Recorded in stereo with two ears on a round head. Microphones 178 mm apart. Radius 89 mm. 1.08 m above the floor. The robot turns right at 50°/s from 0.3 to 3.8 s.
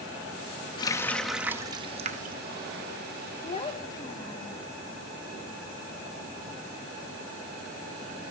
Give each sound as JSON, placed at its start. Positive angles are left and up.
{"t": 0.8, "sound": "a running tap", "azimuth_deg": 155, "distance_m": 0.6}
{"t": 3.4, "sound": "a child speaking", "side_deg": 35, "distance_m": 0.6}